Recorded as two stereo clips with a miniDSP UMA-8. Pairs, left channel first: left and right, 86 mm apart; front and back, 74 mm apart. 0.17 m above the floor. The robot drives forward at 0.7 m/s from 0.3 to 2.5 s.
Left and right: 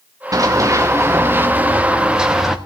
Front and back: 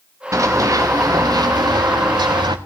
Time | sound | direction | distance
0.3 | running footsteps | 135° right | 1.6 m